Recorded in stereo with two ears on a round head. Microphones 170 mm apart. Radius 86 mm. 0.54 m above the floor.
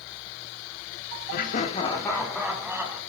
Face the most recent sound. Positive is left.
turn(degrees=-10)  # may be behind; listen again after turning